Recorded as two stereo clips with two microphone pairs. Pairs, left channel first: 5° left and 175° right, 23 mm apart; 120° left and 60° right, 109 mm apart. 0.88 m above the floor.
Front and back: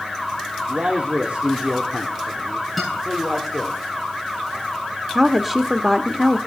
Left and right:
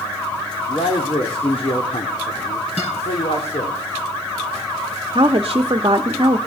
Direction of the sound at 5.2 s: 105° right.